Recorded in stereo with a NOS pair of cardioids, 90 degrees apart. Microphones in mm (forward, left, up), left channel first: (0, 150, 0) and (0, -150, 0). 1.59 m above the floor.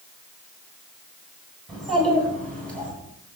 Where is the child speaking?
Straight ahead, 9.5 m; by 2.9 s 5° left, 10 m.